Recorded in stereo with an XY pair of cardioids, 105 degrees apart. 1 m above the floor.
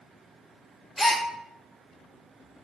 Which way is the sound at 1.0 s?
Straight ahead.